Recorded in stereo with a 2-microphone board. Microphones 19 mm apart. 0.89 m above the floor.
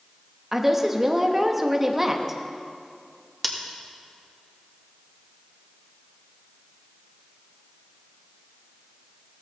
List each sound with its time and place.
0.5 s a woman speaking: 10° right (ahead or behind), 1.2 m
3.4 s scissors: centre (ahead or behind), 1.5 m